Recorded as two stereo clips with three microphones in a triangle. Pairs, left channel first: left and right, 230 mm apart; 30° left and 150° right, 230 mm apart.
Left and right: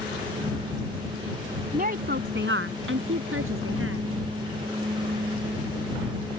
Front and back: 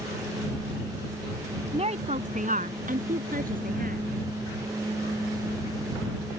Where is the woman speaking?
105° right; by 4.1 s 100° right.